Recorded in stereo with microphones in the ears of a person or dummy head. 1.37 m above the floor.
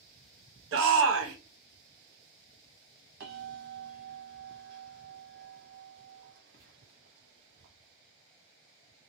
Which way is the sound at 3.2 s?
55° right (ahead or behind).